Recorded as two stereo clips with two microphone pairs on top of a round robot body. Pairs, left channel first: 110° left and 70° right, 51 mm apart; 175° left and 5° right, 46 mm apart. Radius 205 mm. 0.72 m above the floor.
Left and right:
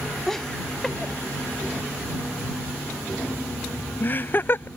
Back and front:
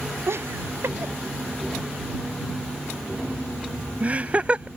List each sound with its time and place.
0.3 s laughter: 30° left; by 4.7 s 65° left